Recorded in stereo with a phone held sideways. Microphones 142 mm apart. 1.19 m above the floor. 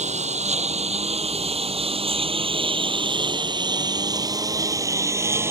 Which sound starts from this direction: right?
A lawn mower, at 0.0 s.